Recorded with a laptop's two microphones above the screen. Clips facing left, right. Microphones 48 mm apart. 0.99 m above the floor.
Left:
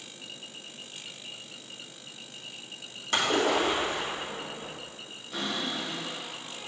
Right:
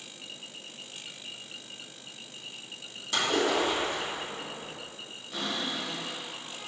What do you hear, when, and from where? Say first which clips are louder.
3.1 s a splash: left 1 dB; 45° left (ahead or behind), 1.7 m
5.3 s a cupboard door: left 1 dB; 5° left (ahead or behind), 1.8 m